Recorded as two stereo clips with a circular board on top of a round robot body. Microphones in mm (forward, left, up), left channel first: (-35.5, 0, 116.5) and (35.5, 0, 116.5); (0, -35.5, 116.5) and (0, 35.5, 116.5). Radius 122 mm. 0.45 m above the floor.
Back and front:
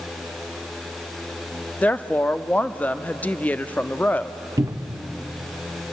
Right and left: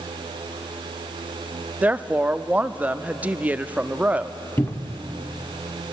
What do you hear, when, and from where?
1.8 s a woman speaking: 135° left, 0.9 m
4.6 s a cupboard door: 35° right, 0.9 m